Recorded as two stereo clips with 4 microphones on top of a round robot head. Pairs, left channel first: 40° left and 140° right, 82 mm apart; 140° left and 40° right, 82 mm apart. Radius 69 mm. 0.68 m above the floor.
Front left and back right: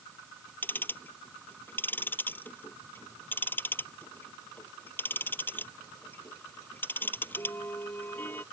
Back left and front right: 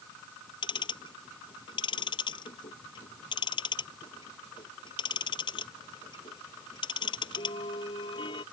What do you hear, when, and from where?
0.6 s ticking: 105° left